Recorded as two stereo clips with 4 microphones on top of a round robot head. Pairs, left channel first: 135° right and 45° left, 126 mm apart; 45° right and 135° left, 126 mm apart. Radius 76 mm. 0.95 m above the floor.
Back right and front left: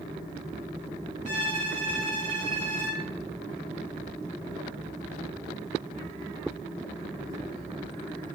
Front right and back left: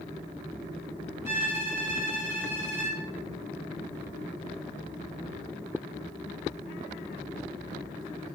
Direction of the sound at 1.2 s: 150° right.